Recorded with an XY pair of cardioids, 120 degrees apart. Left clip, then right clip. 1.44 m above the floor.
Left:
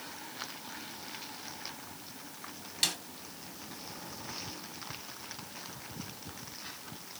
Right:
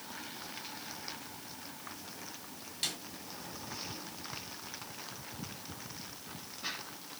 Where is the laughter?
No laughter in this recording.